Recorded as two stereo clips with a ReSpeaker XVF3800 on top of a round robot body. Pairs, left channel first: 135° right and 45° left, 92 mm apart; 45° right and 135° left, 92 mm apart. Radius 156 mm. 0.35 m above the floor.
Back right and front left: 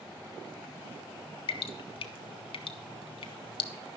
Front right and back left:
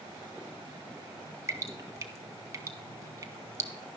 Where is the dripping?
165° right, 0.8 m.